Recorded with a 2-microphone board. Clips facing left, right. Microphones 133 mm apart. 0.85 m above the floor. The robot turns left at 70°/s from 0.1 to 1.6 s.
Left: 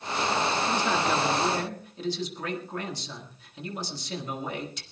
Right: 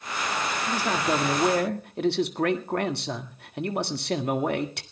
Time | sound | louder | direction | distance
0.7 | a man speaking | even | straight ahead | 1.8 m